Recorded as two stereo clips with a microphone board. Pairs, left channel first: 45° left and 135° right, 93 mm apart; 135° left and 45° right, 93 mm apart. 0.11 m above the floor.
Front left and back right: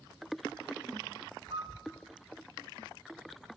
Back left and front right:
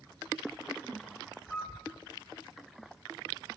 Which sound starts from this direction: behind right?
A piano, at 1.5 s.